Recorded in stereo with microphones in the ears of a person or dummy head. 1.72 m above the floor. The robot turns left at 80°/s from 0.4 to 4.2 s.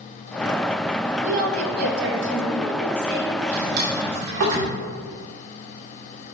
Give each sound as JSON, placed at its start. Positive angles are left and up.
{"t": 1.2, "sound": "a woman speaking", "azimuth_deg": -40, "distance_m": 1.8}
{"t": 3.4, "sound": "a drawer", "side_deg": -35, "distance_m": 3.0}